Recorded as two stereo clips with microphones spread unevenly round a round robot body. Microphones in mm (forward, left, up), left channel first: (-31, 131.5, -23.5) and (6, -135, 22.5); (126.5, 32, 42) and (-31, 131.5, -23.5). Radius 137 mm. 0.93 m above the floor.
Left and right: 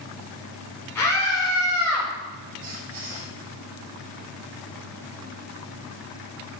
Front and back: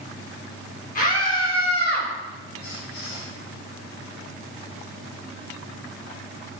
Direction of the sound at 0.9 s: 15° left.